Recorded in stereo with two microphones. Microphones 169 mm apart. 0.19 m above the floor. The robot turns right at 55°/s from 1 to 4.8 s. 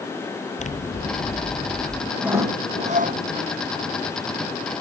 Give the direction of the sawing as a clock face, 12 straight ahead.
6 o'clock.